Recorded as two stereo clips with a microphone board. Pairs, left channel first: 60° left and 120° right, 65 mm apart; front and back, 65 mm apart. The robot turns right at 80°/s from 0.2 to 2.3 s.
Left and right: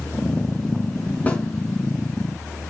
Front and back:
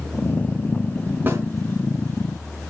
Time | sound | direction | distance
1.3 | a snare drum | 125° left | 3 m